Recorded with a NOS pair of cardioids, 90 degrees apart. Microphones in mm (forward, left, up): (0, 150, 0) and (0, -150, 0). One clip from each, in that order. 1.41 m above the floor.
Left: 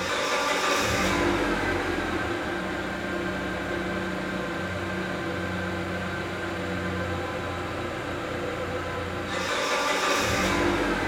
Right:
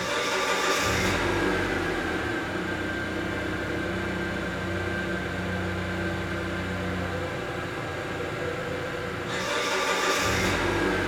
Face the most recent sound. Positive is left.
turn(degrees=-5)